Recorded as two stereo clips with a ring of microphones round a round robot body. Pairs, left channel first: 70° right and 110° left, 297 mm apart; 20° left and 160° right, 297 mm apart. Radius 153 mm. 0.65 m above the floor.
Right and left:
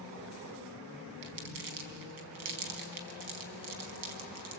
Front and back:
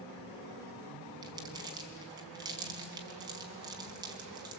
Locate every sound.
1.2 s crumpling: 125° left, 3 m